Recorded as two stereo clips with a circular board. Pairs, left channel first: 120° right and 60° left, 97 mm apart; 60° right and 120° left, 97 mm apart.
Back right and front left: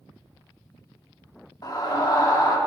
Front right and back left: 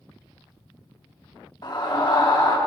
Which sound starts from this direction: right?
A scream, at 1.6 s.